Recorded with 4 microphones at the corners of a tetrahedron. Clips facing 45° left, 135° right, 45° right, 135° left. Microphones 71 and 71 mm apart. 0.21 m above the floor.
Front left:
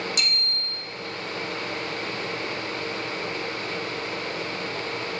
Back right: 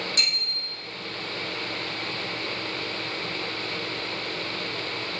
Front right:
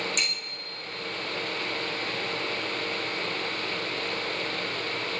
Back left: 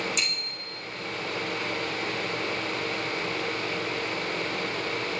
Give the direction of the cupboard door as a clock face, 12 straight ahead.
No cupboard door in this recording.